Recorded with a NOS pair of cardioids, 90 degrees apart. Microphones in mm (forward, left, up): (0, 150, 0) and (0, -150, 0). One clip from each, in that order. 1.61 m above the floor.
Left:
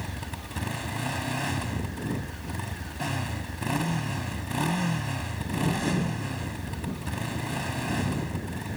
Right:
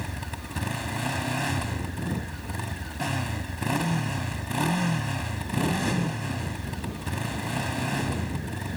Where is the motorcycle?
15° right.